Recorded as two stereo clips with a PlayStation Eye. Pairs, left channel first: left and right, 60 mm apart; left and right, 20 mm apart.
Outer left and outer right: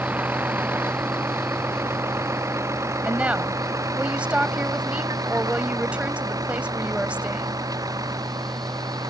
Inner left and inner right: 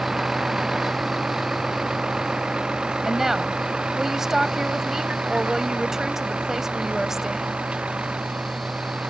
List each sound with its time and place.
0.0 s a vehicle: 30° right (ahead or behind); by 9.1 s 80° right
3.0 s a woman speaking: 20° right (ahead or behind)